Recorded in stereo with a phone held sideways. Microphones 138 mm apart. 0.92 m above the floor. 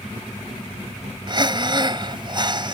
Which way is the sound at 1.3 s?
35° right (ahead or behind).